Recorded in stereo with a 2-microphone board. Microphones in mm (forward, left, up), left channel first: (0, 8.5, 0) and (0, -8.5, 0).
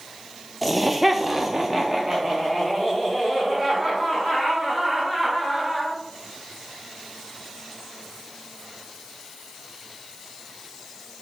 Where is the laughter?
5° right (ahead or behind), 0.6 m; by 6.0 s 15° right (ahead or behind), 3 m.